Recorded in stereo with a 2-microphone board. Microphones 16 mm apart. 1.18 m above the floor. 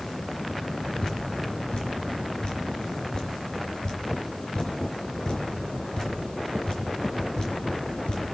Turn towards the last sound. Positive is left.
turn(degrees=65)  # may be behind; listen again after turning